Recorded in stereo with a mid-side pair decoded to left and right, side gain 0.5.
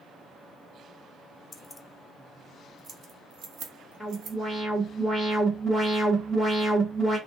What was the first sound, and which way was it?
Keys jangling, 25° left.